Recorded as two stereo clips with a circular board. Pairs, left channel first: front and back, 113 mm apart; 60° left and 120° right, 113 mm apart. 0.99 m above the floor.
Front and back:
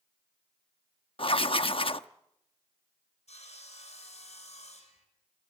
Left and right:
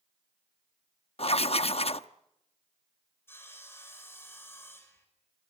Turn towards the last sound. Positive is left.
turn(degrees=-10)